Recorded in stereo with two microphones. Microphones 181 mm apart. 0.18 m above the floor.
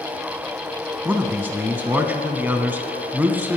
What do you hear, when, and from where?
1.1 s a man speaking: 10° right (ahead or behind), 1.1 m